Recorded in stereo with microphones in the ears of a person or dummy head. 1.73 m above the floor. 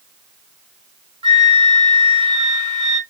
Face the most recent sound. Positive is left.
turn(degrees=-30)  # may be behind; listen again after turning